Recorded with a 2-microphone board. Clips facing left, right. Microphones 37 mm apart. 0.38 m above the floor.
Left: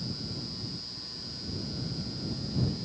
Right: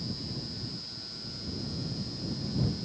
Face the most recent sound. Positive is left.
No sound to turn to.